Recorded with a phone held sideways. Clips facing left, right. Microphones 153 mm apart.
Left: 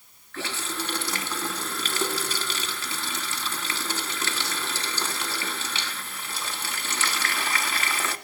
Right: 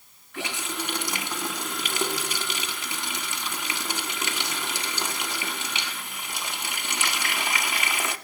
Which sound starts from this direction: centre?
A running tap, at 0.3 s.